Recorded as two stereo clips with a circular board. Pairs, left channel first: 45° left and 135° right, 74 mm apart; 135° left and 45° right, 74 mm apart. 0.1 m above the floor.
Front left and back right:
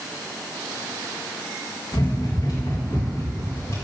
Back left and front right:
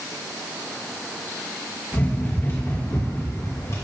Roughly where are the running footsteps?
Left.